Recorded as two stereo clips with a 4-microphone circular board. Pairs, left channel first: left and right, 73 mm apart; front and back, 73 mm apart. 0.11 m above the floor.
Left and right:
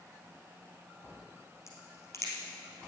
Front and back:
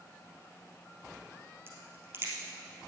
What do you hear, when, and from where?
1.7 s a crack: 130° left, 3 m